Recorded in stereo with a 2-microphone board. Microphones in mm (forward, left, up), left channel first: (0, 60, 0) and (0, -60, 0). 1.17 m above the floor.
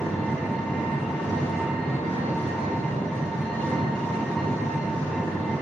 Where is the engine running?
5° left (ahead or behind), 6.5 m.